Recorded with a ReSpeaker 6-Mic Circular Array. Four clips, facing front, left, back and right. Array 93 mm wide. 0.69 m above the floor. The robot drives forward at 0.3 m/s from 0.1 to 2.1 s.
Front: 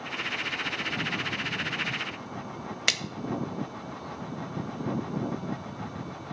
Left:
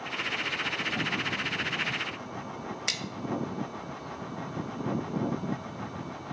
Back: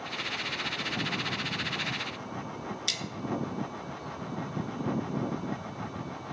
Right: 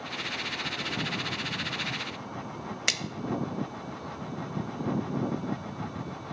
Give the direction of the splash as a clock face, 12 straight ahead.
1 o'clock.